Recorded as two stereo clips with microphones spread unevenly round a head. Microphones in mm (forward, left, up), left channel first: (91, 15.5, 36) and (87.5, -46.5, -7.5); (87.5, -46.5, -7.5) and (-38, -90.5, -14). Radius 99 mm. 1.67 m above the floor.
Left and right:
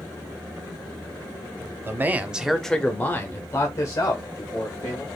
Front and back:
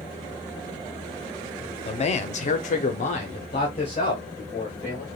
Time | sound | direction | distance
1.9 | a man speaking | 20° right | 0.6 m